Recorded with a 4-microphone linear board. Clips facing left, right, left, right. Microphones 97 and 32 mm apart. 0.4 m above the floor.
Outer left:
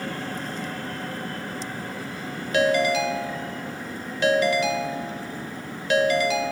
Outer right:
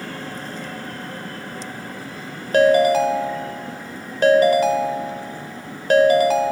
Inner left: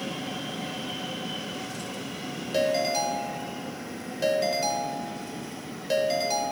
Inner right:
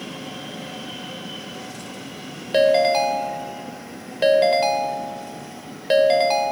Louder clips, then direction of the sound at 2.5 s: Outer right 7 dB, inner right 9 dB; 45° right (ahead or behind).